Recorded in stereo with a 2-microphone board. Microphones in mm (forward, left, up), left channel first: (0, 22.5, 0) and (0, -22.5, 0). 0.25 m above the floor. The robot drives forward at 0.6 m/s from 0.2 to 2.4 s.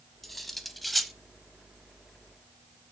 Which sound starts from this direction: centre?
Cutlery clinking, at 0.2 s.